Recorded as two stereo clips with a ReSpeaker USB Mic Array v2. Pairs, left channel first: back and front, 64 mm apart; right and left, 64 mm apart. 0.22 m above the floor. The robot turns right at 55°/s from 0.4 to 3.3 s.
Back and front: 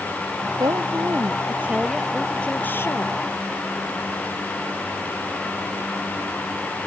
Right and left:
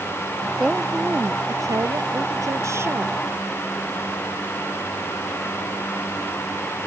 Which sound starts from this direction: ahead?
A woman speaking, at 0.6 s.